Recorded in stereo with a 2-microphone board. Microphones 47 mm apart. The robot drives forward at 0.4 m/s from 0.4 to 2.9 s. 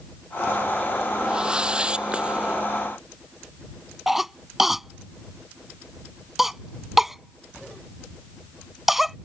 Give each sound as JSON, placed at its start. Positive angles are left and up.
{"t": 1.2, "sound": "a whoosh", "side_deg": -20}
{"t": 4.1, "sound": "a cough", "side_deg": -5}